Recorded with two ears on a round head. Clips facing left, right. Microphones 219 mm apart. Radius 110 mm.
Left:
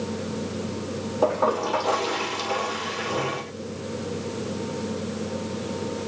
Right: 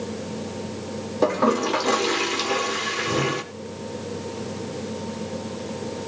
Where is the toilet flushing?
35° right (ahead or behind), 1.9 m.